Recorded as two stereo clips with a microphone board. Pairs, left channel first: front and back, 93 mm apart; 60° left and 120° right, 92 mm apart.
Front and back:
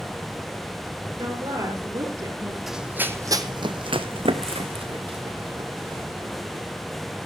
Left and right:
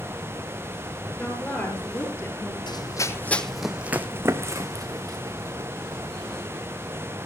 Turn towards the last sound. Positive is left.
turn(degrees=-160)